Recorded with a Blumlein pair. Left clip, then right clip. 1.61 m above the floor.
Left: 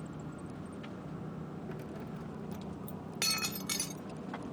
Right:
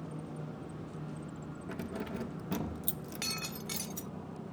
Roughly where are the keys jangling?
Ahead.